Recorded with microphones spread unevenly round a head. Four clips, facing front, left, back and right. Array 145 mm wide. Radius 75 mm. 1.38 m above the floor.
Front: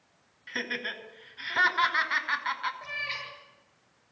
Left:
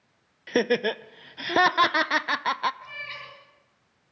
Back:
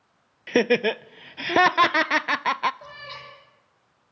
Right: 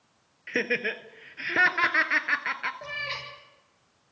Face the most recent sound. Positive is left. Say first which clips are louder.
# right 4 dB, front 2 dB
turn(degrees=-110)